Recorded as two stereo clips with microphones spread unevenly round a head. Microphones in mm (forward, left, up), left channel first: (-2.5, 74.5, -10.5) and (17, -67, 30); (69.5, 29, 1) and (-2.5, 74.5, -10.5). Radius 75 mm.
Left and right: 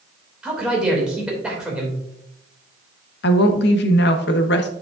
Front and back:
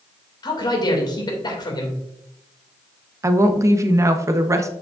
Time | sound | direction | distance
0.4 | a man speaking | 5° left | 2.5 m
3.2 | a woman speaking | 90° left | 1.1 m